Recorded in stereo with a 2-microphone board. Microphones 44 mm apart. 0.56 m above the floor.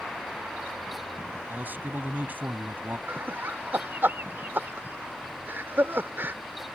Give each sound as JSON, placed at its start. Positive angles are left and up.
{"t": 1.5, "sound": "a man speaking", "side_deg": -45}
{"t": 3.1, "sound": "laughter", "side_deg": -55}